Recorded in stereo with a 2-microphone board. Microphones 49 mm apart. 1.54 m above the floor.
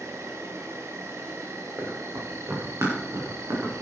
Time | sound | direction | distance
0.0 | an insect | 70° right (ahead or behind) | 1.9 m
1.8 | running footsteps | 65° right (ahead or behind) | 5.5 m